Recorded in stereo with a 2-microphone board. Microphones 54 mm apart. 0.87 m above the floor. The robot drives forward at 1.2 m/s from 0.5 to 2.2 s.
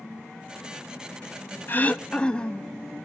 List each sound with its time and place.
1.7 s throat clearing: 40° left (ahead or behind), 0.5 m; by 2.8 s 20° left (ahead or behind), 1.0 m